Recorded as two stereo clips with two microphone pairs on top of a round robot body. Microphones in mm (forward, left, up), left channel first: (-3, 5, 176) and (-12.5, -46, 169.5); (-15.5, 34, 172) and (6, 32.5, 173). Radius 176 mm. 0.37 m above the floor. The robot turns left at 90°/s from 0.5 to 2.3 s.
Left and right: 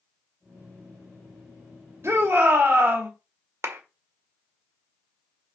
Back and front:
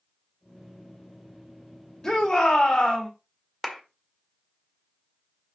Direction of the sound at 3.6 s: 120° right.